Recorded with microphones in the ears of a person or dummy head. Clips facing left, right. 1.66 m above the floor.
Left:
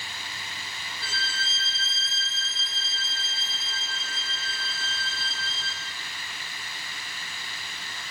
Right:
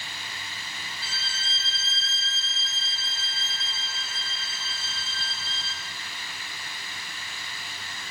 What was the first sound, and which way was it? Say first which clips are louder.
A violin: left 3 dB; 40° left (ahead or behind).